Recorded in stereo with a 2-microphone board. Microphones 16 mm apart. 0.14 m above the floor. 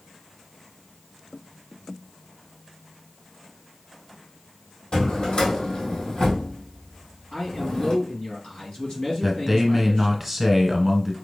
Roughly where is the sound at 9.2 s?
Centre.